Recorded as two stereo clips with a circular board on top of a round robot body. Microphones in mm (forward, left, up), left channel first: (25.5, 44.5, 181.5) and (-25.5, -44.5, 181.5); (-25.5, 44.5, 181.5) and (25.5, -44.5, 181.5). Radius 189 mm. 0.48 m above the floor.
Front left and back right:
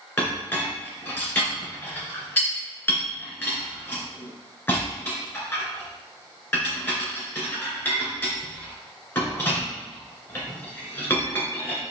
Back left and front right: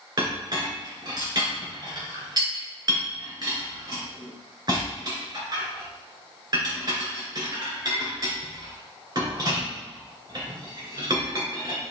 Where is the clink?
10° right, 2 m.